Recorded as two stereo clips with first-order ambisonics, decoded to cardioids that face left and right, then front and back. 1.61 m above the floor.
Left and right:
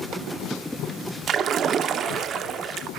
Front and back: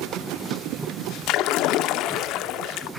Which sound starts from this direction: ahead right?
A splash, at 1.3 s.